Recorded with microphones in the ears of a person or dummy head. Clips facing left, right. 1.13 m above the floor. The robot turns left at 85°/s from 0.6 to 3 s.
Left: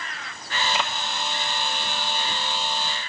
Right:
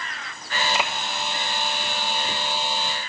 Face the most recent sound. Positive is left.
No sound to turn to.